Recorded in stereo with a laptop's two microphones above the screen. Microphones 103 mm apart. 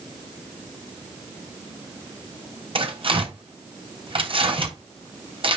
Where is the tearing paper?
60° right (ahead or behind), 3 m.